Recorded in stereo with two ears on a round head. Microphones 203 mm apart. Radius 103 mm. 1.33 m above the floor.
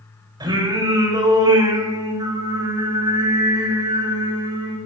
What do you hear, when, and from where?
0.4 s singing: 15° right (ahead or behind), 7 m